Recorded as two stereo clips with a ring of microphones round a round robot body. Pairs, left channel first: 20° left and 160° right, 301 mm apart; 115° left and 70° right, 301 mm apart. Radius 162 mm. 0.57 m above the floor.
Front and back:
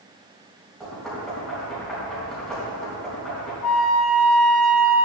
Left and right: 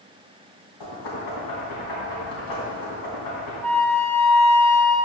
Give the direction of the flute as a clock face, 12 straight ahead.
11 o'clock.